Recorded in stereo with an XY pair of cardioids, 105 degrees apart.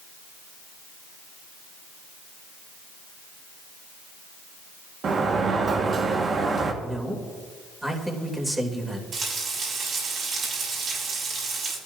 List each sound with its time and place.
5.0 s a sliding door: 50° right, 1.8 m
6.8 s a man speaking: 10° right, 3 m
9.1 s frying: 55° right, 7 m